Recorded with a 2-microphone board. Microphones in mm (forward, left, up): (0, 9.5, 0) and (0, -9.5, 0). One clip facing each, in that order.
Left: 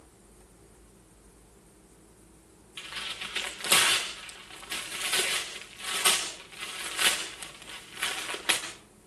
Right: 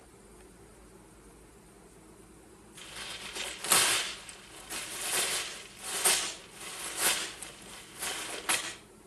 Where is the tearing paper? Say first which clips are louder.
Left 6 dB; 65° left (ahead or behind), 6.5 m.